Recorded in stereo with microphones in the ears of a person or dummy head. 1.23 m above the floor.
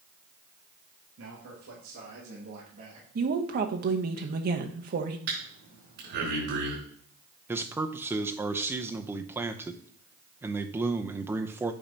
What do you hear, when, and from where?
1.2 s a man speaking: 80° right, 2.5 m; by 3.0 s 35° right (ahead or behind), 2 m
3.1 s a woman speaking: 50° right (ahead or behind), 1.0 m
5.3 s breathing: 60° right (ahead or behind), 4.5 m
7.5 s a man speaking: 10° right (ahead or behind), 0.7 m